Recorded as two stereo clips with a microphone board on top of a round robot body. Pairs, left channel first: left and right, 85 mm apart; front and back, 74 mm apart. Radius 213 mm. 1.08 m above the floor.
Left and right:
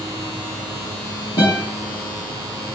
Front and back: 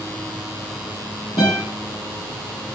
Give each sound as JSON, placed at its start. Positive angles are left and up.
{"t": 1.4, "sound": "a guitar", "azimuth_deg": 50, "distance_m": 1.2}